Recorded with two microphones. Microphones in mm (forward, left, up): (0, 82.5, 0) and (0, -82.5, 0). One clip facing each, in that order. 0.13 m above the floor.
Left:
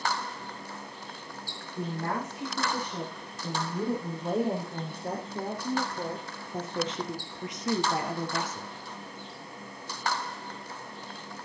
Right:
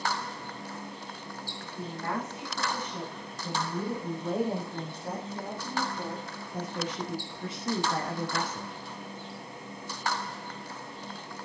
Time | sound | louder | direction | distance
1.8 | a woman speaking | left 2 dB | 35° left (ahead or behind) | 6 m